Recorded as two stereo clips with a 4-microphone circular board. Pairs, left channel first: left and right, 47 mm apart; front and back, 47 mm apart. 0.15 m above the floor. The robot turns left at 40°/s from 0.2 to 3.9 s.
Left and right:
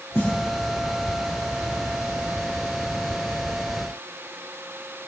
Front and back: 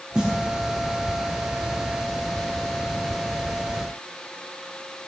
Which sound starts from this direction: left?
A snare drum, at 0.1 s.